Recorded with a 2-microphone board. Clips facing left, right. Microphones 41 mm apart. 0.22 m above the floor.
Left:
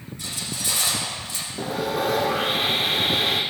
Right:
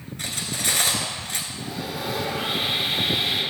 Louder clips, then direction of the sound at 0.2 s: Right 3 dB; 55° right (ahead or behind).